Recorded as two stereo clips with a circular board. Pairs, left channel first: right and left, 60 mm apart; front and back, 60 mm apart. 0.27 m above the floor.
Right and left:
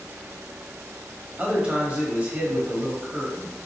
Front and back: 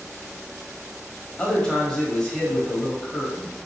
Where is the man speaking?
55° left, 1.1 m.